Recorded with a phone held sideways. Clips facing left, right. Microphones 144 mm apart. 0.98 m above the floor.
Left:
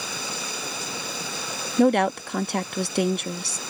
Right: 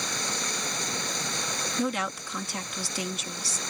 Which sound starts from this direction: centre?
Running water, at 0.0 s.